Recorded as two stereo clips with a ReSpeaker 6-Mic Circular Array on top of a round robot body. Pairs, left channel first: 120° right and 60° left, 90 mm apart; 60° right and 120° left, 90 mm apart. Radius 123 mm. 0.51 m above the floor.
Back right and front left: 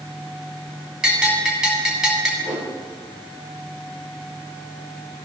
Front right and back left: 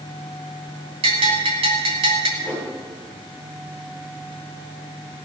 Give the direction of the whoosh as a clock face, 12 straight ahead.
11 o'clock.